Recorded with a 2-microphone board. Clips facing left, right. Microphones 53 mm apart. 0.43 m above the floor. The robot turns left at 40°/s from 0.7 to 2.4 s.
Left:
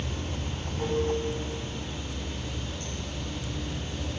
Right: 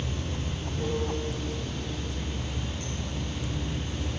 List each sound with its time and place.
0.0 s running water: 65° left, 2 m; by 4.2 s 5° right, 2 m